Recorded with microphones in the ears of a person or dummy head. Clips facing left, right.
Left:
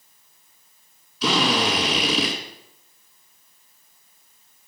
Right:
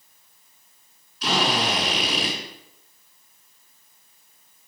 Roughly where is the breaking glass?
No breaking glass in this recording.